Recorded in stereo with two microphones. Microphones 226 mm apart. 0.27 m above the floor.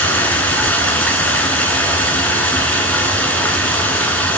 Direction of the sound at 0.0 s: 5° left (ahead or behind).